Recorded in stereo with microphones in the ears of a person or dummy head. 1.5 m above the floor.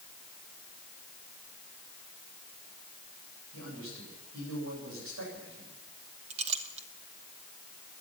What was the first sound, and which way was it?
A man speaking, 75° right (ahead or behind).